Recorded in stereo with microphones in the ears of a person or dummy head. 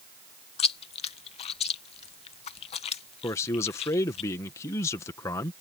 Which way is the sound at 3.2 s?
15° left (ahead or behind).